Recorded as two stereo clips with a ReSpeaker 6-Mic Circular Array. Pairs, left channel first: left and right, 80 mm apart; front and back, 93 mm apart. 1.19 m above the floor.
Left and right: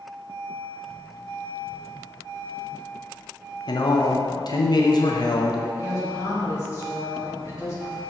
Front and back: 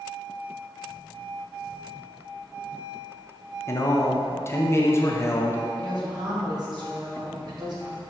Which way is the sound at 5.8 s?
140° left.